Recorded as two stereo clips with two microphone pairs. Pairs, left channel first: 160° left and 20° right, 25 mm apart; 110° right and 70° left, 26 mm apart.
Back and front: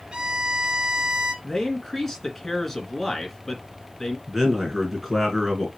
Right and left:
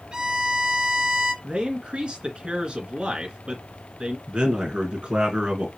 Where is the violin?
30° left, 2.5 m.